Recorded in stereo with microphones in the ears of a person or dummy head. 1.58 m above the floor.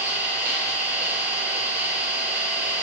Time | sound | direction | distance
0.0 | an engine running | 15° right (ahead or behind) | 1.1 m